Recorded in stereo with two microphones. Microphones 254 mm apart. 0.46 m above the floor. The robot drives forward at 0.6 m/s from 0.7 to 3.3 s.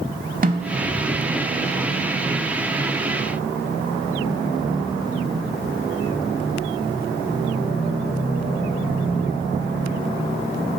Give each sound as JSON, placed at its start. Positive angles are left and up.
{"t": 0.4, "sound": "a snare drum", "side_deg": -35, "distance_m": 0.7}